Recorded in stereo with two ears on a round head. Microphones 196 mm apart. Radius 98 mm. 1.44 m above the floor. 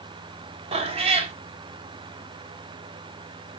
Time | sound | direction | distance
0.7 | a cat meowing | 30° right (ahead or behind) | 1.1 m